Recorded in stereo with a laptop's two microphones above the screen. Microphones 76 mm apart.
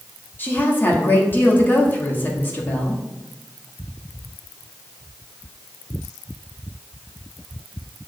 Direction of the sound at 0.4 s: 25° left (ahead or behind).